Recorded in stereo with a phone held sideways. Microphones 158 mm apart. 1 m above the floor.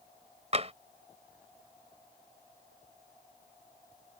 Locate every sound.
0.5 s tapping: 45° right (ahead or behind)